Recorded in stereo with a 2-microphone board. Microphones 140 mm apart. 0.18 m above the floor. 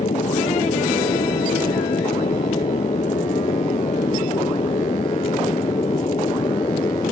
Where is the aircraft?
55° left (ahead or behind); by 7.1 s 35° left (ahead or behind).